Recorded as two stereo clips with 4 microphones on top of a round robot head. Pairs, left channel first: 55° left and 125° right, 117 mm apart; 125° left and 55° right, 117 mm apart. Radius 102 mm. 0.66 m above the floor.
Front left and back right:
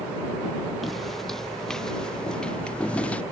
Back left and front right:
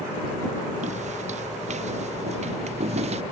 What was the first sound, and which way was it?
Footsteps, 35° right.